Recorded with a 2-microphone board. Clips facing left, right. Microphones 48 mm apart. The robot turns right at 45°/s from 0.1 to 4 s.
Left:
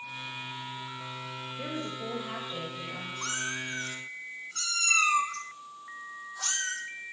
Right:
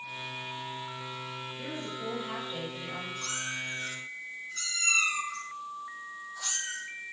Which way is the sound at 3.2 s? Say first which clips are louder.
Left 5 dB; 40° left (ahead or behind).